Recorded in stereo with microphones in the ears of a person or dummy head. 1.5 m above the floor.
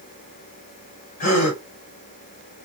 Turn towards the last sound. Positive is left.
turn(degrees=45)  # may be behind; listen again after turning